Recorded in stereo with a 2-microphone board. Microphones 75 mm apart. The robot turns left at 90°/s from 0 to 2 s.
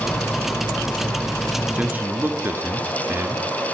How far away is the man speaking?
About 1.7 m.